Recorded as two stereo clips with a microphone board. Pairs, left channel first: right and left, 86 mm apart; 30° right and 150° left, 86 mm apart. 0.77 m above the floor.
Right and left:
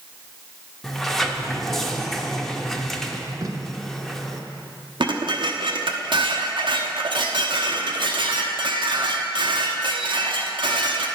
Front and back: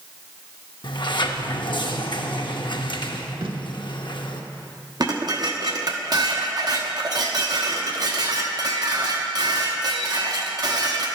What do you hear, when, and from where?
0.8 s a sliding door: 5° right, 0.6 m
3.4 s tape being pulled: 140° left, 0.8 m
5.0 s dishes clattering: 110° left, 0.8 m